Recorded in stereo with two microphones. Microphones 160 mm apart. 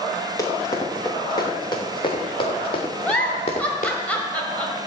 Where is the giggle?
10° left (ahead or behind), 1.7 m.